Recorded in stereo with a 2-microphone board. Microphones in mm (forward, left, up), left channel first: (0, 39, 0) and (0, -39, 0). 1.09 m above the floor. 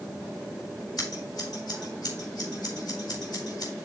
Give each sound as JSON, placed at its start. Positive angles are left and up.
{"t": 1.0, "sound": "scissors", "side_deg": 65, "distance_m": 3.0}